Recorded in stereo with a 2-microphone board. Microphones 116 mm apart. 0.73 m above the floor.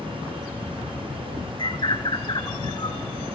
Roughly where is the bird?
Left.